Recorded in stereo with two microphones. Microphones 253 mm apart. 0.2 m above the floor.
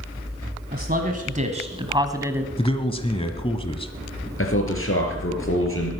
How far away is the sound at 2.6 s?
About 1.2 m.